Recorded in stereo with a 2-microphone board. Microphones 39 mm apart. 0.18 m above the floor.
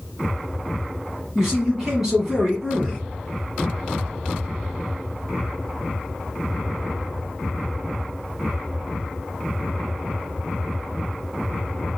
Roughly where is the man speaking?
Centre.